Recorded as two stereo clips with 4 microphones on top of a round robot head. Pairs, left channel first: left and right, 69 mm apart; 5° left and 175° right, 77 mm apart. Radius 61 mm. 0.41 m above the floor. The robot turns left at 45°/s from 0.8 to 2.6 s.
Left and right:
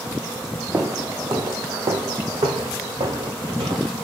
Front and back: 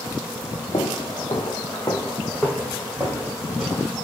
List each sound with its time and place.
0.7 s footsteps: 30° right, 1.0 m; by 3.9 s 75° right, 2.5 m